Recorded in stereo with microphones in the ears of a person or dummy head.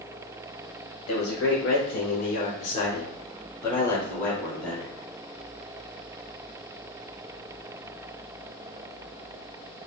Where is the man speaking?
50° left (ahead or behind), 0.9 m; by 5.0 s 10° left (ahead or behind), 2.0 m.